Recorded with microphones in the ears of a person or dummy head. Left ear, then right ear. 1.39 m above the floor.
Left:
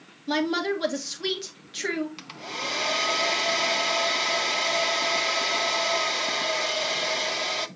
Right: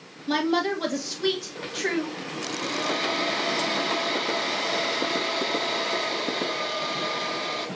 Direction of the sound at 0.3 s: 10° left (ahead or behind).